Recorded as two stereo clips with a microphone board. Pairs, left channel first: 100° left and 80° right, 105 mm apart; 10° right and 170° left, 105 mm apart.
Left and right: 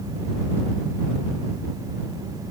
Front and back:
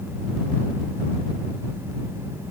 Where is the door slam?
I don't hear a door slam.